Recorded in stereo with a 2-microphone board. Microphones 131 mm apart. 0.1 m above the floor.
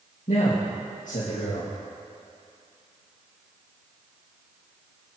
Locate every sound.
0.3 s a man speaking: 70° left (ahead or behind), 4.5 m